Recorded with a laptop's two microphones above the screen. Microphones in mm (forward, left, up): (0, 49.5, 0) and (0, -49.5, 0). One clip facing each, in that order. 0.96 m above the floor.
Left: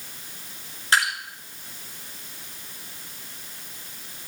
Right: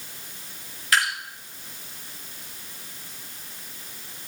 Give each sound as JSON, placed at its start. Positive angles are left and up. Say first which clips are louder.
{"t": 0.9, "sound": "dripping", "louder": "left 1 dB", "side_deg": 30, "distance_m": 3.0}